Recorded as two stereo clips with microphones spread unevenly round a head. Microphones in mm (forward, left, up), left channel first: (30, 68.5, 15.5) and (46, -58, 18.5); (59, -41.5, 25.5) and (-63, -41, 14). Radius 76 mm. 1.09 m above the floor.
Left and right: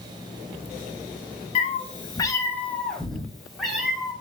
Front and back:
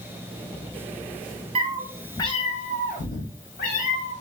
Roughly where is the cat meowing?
Behind left.